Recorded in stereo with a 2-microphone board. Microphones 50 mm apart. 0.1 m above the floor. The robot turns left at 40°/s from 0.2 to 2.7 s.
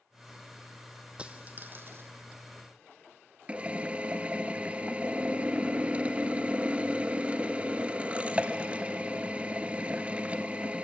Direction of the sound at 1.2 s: 20° right.